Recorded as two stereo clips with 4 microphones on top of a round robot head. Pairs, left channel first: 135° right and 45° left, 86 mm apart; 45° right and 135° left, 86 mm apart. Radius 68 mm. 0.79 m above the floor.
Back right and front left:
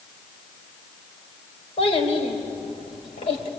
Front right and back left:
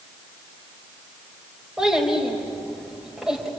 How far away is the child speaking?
About 4 m.